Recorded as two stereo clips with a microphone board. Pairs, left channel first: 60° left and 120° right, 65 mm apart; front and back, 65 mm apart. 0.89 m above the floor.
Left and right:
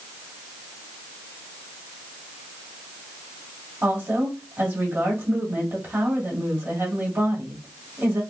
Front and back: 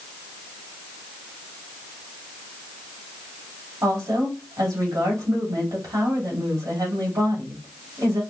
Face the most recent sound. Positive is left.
turn(degrees=-170)